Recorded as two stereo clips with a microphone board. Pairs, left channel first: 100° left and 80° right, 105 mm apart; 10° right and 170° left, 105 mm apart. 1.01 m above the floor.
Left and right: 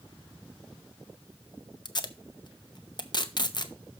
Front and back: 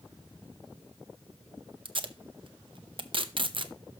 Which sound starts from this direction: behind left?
Tape being pulled, at 1.9 s.